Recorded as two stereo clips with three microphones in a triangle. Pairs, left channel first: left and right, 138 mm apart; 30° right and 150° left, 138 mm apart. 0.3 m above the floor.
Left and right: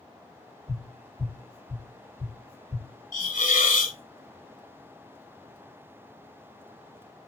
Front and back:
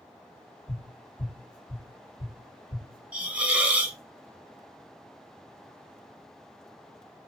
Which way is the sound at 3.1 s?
70° left.